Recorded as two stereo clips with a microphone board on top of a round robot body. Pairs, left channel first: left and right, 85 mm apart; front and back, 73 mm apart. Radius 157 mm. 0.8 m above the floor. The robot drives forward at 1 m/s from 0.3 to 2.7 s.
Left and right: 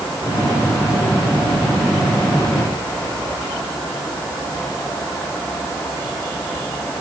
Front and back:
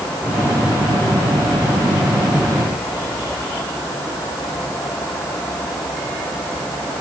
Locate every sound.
Only background noise.